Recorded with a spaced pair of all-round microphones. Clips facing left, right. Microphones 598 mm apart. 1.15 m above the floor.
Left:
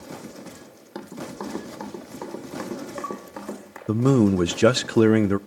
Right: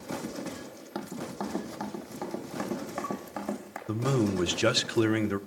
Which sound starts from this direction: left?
A man speaking, at 3.9 s.